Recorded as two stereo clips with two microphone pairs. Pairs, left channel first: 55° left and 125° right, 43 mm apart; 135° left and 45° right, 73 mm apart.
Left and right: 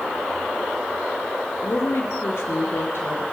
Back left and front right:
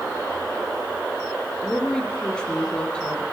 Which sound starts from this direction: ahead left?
A woman speaking, at 1.6 s.